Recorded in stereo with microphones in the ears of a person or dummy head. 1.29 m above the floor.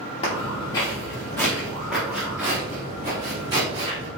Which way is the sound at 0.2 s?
30° left (ahead or behind).